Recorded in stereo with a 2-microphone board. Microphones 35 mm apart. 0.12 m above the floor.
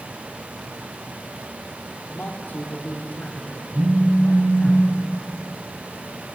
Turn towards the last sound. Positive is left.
turn(degrees=-60)  # may be behind; listen again after turning